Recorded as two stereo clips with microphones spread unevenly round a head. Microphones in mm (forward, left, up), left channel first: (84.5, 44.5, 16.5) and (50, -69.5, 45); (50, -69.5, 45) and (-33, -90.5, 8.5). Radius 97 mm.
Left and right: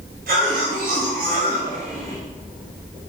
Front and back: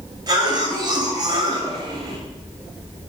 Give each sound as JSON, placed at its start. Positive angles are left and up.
{"t": 0.3, "sound": "a cough", "azimuth_deg": -120, "distance_m": 6.0}